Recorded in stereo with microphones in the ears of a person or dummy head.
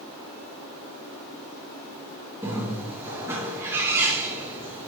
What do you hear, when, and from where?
2.4 s a bird: 20° right (ahead or behind), 3.5 m